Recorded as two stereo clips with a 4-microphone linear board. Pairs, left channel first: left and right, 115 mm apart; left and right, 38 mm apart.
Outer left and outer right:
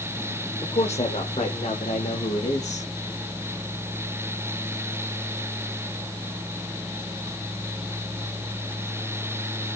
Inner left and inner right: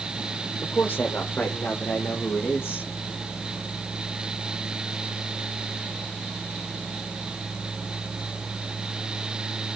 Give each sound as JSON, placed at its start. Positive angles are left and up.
{"t": 0.6, "sound": "a man speaking", "side_deg": 60, "distance_m": 4.5}